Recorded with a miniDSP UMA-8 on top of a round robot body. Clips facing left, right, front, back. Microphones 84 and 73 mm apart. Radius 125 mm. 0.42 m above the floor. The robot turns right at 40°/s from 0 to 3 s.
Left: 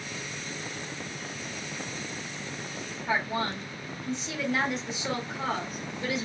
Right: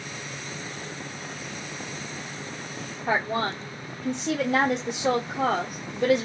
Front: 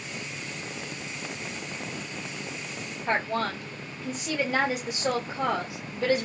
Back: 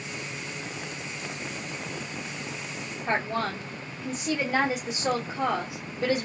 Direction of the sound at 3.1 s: 90° right.